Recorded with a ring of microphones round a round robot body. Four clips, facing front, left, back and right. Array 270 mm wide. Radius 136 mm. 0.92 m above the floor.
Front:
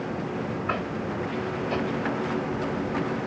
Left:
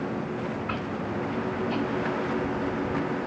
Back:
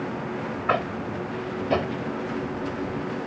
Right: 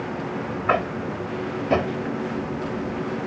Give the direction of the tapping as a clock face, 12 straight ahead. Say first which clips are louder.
Right 7 dB, back 3 dB; 4 o'clock.